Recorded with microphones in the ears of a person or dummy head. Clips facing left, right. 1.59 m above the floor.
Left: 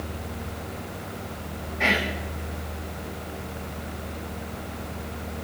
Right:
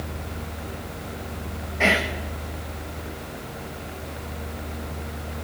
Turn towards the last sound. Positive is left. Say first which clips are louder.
# right 3 dB
turn(degrees=-50)  # may be behind; listen again after turning